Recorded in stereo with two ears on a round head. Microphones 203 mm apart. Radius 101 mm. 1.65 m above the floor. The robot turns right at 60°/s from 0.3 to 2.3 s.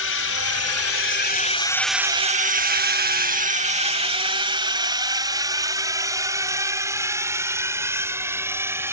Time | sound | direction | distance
0.0 | a drone | 60° left (ahead or behind) | ?